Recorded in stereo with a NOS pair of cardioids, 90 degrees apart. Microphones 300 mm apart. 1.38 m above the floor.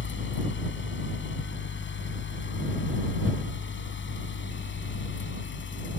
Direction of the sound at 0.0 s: 40° left.